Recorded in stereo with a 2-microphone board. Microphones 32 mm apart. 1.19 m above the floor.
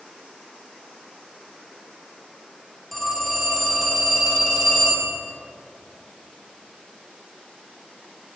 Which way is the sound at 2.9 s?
5° left (ahead or behind).